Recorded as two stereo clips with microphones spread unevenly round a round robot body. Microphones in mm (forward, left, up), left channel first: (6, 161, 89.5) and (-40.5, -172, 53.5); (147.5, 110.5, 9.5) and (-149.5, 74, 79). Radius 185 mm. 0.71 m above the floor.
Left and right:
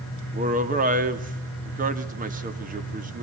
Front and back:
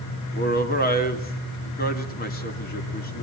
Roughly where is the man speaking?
Ahead right.